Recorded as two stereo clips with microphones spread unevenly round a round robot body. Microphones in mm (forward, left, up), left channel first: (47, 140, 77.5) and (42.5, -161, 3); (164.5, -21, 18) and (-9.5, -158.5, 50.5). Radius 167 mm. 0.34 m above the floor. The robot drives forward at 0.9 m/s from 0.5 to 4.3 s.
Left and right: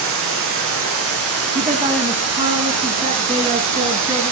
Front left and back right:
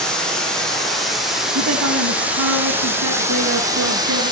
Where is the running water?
50° right, 8 m; by 4.3 s 70° right, 6.5 m.